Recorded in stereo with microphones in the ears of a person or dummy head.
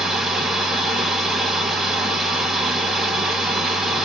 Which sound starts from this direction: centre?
A machine running, at 0.0 s.